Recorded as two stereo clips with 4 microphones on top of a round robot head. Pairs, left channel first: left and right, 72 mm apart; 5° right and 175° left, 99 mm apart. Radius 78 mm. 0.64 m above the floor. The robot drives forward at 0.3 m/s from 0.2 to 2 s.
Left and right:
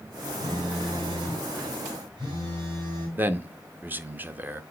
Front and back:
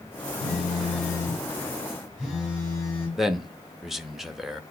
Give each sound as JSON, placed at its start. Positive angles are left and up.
{"t": 0.4, "sound": "a phone buzzing", "azimuth_deg": -90, "distance_m": 4.0}
{"t": 3.2, "sound": "a man speaking", "azimuth_deg": -95, "distance_m": 0.7}